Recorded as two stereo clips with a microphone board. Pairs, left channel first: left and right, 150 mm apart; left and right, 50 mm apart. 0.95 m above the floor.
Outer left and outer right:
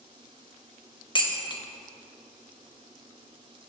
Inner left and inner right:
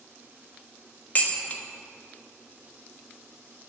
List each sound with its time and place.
1.1 s dishes clattering: 30° left (ahead or behind), 0.9 m